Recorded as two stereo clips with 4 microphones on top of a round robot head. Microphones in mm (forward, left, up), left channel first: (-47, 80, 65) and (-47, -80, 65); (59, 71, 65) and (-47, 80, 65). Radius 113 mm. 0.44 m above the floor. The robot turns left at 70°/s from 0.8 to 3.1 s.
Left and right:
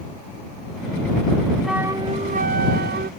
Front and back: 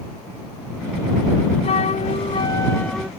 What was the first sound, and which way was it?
A flute, straight ahead.